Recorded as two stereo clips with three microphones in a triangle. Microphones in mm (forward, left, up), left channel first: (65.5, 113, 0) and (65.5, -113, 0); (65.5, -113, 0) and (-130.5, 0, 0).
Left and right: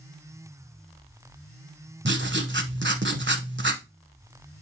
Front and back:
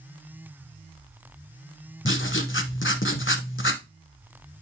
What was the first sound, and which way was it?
Writing, 55° right.